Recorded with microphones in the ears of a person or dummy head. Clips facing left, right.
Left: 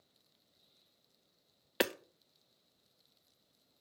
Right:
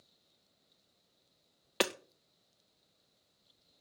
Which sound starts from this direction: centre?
Hammering, at 1.8 s.